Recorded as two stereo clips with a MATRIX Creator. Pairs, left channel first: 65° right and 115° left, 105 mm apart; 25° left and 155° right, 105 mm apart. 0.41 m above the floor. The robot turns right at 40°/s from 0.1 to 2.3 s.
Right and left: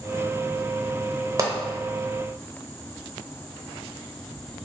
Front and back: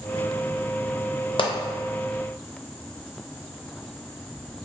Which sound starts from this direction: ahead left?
A pop, at 1.4 s.